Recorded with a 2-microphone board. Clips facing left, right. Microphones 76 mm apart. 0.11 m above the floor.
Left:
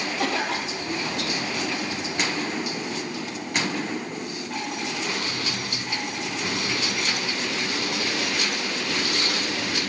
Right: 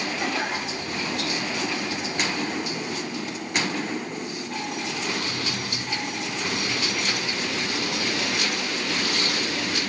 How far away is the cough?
About 3.5 m.